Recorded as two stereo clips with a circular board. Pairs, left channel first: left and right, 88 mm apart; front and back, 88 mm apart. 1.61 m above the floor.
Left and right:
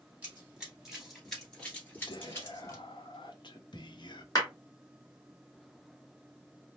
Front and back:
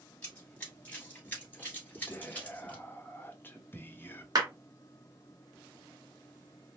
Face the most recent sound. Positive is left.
turn(degrees=135)